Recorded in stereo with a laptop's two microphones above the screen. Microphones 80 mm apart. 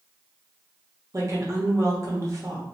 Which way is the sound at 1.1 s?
40° right (ahead or behind).